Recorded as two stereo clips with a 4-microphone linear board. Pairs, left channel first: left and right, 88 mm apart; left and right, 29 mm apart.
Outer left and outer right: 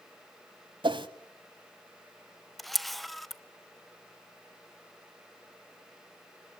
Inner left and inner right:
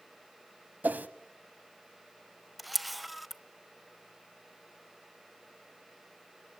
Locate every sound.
0.8 s a whoosh: 65° right (ahead or behind), 0.9 m
2.6 s a camera shutter: centre (ahead or behind), 0.7 m